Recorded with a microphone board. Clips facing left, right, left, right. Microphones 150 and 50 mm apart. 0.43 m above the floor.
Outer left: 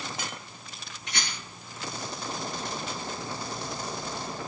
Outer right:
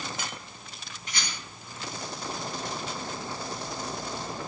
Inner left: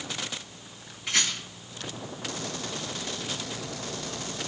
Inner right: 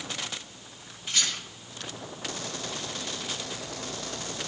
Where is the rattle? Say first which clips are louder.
Outer left 1 dB, inner left 2 dB; 75° left (ahead or behind), 8 m.